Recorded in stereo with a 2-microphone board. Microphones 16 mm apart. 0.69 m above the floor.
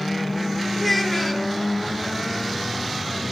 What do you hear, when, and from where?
0.8 s a child speaking: 10° left (ahead or behind), 1.0 m